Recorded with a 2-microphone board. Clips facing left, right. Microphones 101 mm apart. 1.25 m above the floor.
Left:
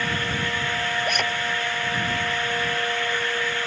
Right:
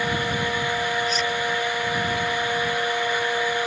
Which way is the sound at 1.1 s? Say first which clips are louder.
Even; 60° left (ahead or behind).